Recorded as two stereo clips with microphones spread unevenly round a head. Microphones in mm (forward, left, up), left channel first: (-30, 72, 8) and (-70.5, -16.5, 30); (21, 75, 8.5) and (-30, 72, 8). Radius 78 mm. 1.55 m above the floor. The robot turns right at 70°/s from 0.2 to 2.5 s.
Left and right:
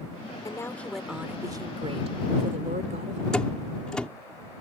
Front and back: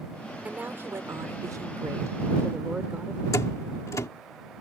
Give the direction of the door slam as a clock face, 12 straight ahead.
1 o'clock.